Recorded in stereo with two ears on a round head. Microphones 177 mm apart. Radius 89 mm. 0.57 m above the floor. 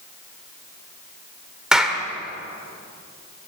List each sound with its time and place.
1.7 s a clap: 5° right (ahead or behind), 1.7 m